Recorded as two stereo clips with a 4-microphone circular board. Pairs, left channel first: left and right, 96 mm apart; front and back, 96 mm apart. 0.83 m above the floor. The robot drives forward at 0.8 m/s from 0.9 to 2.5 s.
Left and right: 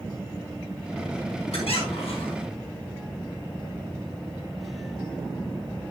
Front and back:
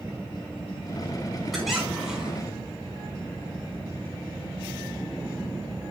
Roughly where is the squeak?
Left.